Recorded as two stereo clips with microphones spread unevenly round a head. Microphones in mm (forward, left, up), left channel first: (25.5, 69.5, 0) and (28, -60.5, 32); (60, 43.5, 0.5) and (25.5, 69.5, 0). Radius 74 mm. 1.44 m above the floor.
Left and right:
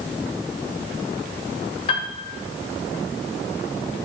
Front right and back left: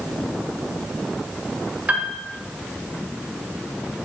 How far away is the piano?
About 1.3 m.